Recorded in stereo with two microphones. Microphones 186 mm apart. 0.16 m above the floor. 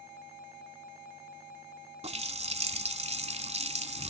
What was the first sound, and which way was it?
A running tap, 35° right (ahead or behind).